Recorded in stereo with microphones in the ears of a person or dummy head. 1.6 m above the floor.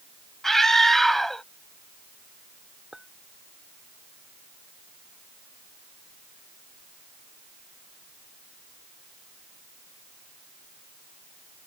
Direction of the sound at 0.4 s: Centre (ahead or behind).